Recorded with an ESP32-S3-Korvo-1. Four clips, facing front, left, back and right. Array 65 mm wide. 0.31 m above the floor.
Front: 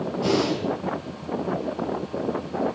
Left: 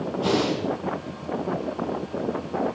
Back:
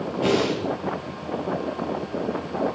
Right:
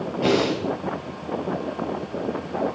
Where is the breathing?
115° right, 5.5 m.